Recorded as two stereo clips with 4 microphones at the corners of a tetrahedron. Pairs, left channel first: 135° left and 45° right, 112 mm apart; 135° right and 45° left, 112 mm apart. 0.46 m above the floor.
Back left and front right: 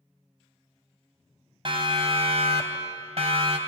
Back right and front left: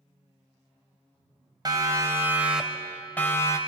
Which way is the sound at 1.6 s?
5° right.